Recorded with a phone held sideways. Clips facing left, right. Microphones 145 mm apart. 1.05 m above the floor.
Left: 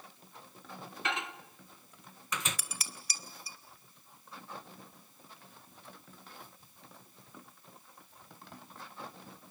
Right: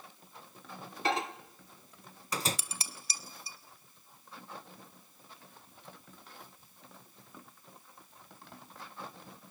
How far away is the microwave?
About 0.7 m.